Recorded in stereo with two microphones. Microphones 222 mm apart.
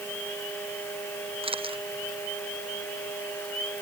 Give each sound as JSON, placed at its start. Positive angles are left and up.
{"t": 1.4, "sound": "a camera shutter", "side_deg": -25}